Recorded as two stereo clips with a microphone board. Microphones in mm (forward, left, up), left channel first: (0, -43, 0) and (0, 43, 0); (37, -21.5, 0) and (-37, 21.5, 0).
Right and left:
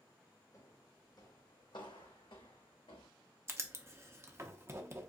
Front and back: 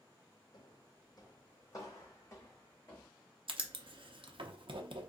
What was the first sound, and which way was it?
Footsteps, 45° right.